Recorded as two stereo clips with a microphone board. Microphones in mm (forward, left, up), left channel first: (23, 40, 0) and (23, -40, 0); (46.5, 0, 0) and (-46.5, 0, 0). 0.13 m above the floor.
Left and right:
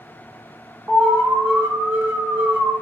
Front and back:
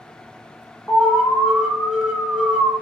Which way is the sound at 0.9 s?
105° right.